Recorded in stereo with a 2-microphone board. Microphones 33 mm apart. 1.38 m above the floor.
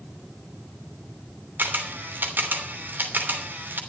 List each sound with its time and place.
1.6 s a camera shutter: 80° right, 3 m